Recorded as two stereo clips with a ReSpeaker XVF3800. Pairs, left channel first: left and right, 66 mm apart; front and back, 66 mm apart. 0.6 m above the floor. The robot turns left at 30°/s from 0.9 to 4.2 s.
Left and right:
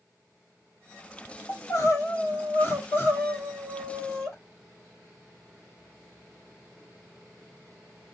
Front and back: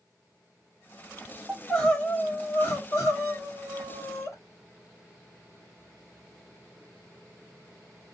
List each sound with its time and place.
1.5 s crying: 85° left, 1.9 m; by 4.3 s 5° left, 1.9 m